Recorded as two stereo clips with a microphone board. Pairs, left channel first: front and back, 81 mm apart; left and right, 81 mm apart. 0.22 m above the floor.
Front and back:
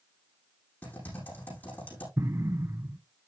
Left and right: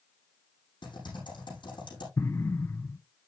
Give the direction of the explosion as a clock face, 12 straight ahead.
7 o'clock.